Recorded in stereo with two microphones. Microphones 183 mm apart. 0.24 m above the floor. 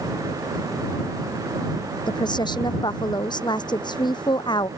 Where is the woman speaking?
25° left (ahead or behind).